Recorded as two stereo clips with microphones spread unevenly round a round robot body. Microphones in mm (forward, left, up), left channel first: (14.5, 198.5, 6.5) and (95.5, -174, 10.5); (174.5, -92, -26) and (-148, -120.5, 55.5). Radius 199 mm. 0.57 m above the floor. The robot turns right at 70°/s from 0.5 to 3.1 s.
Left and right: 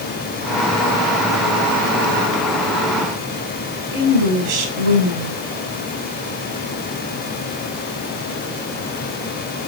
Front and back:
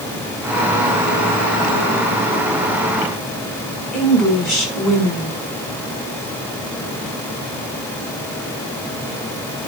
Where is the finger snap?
No finger snap in this recording.